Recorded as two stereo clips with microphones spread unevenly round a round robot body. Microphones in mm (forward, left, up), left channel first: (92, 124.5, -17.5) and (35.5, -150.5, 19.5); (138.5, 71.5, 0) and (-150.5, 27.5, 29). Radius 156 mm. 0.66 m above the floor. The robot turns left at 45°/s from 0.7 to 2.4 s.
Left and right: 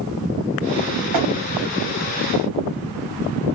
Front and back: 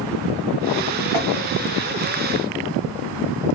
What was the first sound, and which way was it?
Tapping, 135° right.